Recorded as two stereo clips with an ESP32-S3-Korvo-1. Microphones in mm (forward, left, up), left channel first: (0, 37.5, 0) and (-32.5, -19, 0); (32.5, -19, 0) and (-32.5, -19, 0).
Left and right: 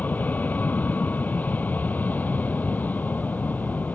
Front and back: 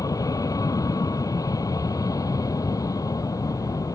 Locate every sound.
0.0 s an aircraft: straight ahead